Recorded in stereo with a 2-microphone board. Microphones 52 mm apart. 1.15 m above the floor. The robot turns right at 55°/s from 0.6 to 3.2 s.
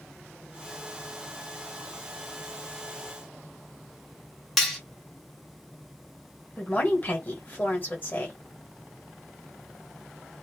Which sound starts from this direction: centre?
Cutlery clinking, at 4.6 s.